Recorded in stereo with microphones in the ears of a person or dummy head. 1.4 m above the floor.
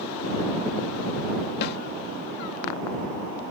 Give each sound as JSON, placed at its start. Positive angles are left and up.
{"t": 1.6, "sound": "a snare drum", "side_deg": 60}